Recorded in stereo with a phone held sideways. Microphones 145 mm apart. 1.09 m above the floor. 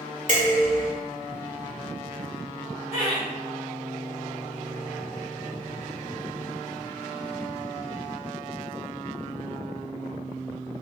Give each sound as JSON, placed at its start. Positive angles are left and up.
{"t": 0.3, "sound": "dishes clattering", "side_deg": -60, "distance_m": 1.8}
{"t": 2.9, "sound": "laughter", "side_deg": -60, "distance_m": 1.8}